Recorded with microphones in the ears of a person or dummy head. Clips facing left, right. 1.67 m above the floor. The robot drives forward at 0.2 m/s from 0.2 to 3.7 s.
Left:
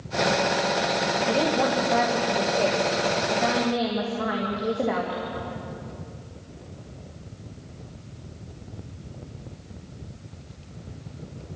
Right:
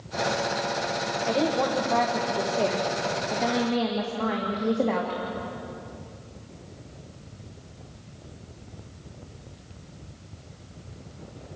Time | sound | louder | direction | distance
1.2 | a woman speaking | even | 10° left (ahead or behind) | 1.8 m